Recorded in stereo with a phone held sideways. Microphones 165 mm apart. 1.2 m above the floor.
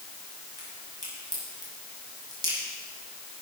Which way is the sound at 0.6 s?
25° right (ahead or behind).